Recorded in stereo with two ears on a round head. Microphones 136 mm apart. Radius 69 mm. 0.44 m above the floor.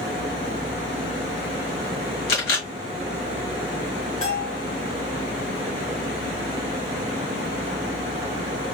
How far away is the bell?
About 2.5 m.